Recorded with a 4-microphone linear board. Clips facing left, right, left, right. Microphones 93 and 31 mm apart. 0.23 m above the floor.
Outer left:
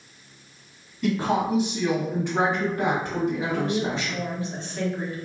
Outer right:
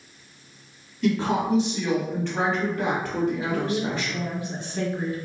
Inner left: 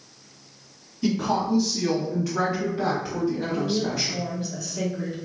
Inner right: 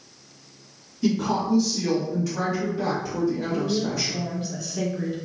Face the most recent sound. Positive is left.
turn(degrees=-15)  # may be behind; listen again after turning